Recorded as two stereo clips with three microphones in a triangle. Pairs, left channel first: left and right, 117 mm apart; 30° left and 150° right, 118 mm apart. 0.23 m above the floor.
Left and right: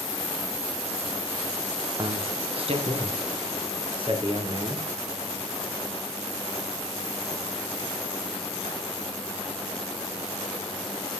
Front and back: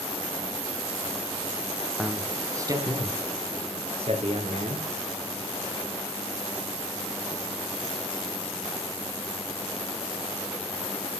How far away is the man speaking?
About 1.5 m.